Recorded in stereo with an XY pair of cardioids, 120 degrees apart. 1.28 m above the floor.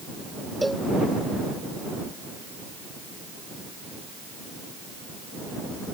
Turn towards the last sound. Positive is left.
turn(degrees=-5)